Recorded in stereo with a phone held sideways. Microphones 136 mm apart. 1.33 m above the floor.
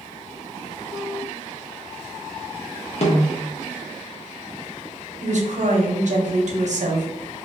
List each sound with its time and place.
3.0 s a snare drum: 50° left (ahead or behind), 0.8 m
5.2 s a woman speaking: 60° right (ahead or behind), 0.8 m